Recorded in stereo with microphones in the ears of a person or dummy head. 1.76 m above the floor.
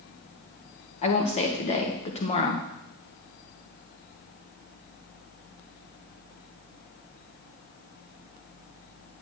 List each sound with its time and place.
1.0 s a woman speaking: 30° left (ahead or behind), 1.5 m